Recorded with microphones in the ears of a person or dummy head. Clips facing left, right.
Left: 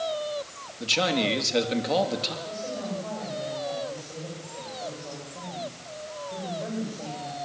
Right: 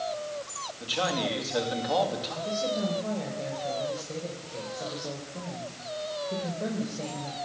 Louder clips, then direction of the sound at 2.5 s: Right 8 dB; 40° right (ahead or behind).